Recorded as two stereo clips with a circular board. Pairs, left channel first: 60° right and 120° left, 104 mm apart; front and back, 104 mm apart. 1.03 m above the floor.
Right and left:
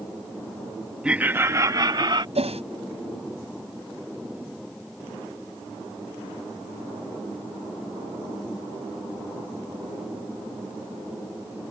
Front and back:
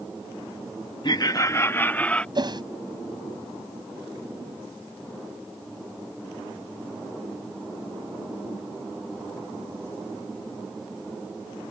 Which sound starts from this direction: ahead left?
Laughter, at 1.0 s.